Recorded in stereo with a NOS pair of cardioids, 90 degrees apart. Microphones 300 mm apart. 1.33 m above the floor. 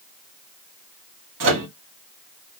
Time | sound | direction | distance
1.4 | a microwave | 60° right | 1.4 m